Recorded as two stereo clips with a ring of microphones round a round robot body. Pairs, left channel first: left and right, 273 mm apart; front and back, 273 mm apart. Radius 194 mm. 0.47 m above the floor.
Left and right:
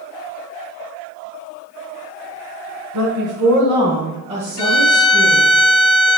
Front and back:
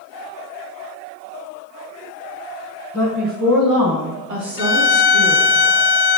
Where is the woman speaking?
120° right, 1.6 m; by 5.5 s 175° left, 3 m.